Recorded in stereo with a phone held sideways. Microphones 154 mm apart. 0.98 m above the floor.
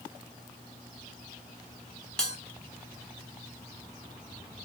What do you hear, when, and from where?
2.2 s a bell: 5° left (ahead or behind), 1.1 m